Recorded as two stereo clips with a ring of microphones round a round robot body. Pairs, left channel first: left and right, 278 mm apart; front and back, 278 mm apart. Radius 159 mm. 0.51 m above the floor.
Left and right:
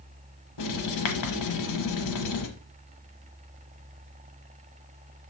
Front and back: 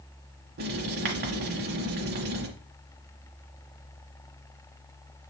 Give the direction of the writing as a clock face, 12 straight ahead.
8 o'clock.